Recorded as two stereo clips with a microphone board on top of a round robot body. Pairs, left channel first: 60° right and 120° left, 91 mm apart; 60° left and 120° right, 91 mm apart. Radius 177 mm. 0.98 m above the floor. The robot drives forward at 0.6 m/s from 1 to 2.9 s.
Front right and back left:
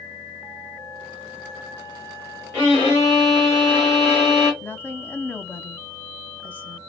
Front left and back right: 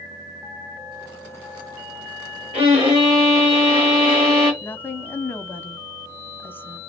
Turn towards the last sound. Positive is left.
turn(degrees=0)